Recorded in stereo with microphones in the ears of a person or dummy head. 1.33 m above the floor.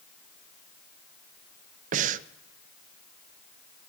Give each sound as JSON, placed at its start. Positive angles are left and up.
{"t": 1.9, "sound": "breathing", "side_deg": -45, "distance_m": 0.6}